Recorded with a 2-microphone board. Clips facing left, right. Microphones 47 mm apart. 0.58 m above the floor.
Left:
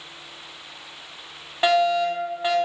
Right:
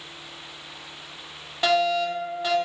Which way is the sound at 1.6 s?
30° left (ahead or behind).